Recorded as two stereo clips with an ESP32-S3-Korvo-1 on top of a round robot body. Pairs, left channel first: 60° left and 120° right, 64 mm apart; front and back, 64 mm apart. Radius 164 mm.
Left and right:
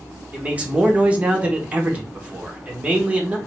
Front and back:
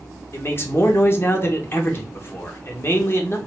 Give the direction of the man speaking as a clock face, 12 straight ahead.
2 o'clock.